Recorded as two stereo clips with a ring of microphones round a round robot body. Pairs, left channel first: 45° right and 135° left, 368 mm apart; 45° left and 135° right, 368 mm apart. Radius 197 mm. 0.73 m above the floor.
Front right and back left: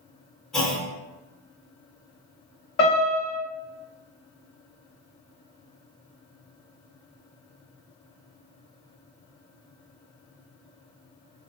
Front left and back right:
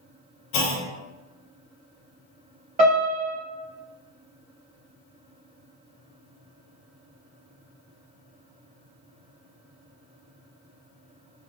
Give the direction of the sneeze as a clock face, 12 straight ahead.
No sneeze in this recording.